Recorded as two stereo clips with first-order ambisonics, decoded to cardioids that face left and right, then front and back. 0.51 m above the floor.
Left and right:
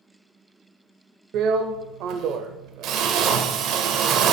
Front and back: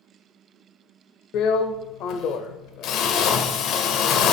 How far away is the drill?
About 0.5 m.